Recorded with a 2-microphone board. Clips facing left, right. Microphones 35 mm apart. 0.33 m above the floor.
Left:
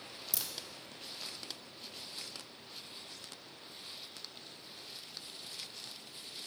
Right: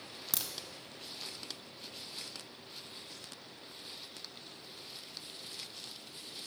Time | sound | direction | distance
0.3 | a crack | 80° right | 1.0 m